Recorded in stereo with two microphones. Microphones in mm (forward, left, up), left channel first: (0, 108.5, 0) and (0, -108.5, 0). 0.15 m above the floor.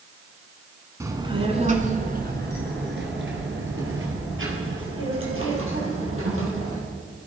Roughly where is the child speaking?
Centre.